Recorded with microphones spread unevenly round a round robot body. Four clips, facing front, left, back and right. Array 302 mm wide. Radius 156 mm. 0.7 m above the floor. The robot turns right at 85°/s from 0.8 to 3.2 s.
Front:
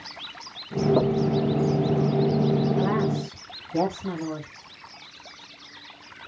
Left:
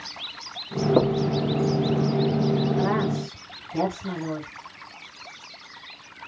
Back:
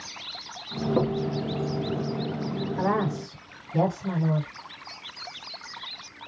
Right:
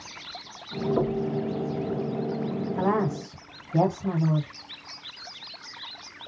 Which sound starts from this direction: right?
A woman speaking, at 2.8 s.